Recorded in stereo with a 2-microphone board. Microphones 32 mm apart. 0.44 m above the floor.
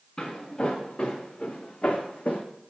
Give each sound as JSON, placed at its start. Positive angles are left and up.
{"t": 0.2, "sound": "footsteps", "side_deg": 35, "distance_m": 1.8}